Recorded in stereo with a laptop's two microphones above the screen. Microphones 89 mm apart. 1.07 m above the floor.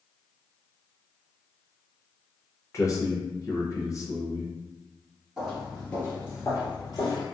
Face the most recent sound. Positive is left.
turn(degrees=50)  # may be behind; listen again after turning